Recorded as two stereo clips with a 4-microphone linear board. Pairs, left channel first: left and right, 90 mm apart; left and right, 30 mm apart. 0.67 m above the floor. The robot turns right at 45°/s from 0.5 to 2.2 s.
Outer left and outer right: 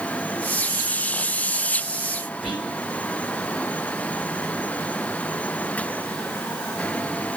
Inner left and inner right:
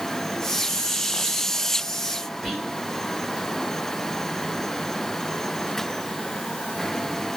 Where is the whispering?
5° right (ahead or behind), 2.5 m.